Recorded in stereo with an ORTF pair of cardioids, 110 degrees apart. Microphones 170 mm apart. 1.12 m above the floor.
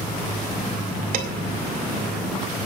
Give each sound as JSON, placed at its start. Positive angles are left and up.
{"t": 1.1, "sound": "dishes clattering", "azimuth_deg": -55, "distance_m": 3.5}